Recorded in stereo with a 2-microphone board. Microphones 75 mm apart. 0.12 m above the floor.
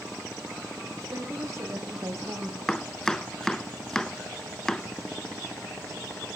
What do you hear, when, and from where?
1.0 s a woman speaking: 40° right (ahead or behind), 6.5 m
2.7 s chopping: 10° left (ahead or behind), 0.6 m